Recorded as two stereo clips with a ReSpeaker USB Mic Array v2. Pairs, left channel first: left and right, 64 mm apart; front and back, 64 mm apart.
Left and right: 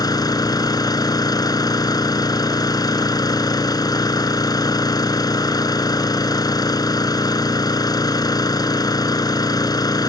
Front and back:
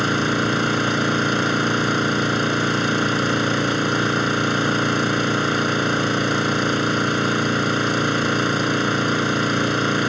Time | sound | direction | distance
0.0 | an engine running | 90° left | ?